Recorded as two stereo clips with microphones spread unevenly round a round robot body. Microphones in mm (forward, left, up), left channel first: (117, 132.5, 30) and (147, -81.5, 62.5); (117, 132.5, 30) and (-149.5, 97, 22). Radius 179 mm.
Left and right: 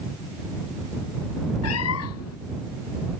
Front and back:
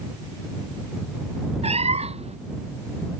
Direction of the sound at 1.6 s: 120° left.